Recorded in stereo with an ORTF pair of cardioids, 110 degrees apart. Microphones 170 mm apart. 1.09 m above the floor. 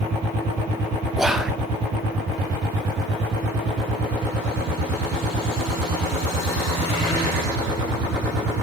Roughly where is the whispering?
Ahead.